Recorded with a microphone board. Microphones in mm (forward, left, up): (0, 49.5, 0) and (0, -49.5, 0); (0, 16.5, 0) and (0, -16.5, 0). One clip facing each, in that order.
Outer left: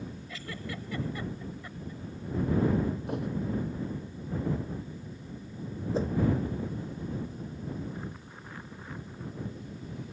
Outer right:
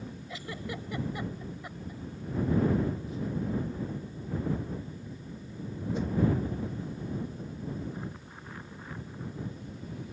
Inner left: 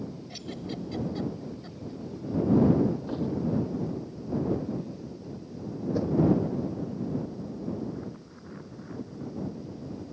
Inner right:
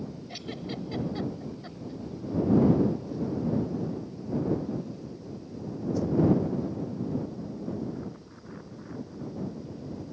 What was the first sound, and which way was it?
A giggle, 20° right (ahead or behind).